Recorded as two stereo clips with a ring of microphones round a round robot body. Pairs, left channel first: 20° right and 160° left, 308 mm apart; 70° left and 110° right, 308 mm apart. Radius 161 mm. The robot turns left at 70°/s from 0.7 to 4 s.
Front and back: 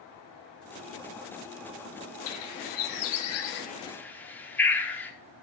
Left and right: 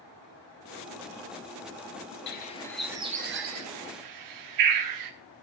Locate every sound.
2.3 s a bird: 15° left, 1.0 m; by 5.1 s 105° right, 1.0 m